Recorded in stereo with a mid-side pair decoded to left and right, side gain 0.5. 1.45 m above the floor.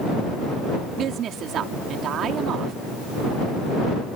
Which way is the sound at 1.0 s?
60° right.